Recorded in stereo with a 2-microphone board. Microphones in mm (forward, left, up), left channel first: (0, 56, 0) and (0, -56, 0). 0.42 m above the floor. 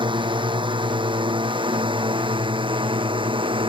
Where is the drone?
45° right (ahead or behind); by 3.7 s 50° right (ahead or behind).